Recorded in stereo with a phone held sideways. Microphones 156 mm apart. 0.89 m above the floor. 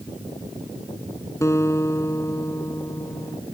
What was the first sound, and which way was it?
A guitar, 20° left (ahead or behind).